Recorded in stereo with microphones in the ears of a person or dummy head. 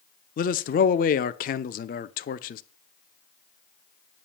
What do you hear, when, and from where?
0.4 s a man speaking: 40° left (ahead or behind), 0.6 m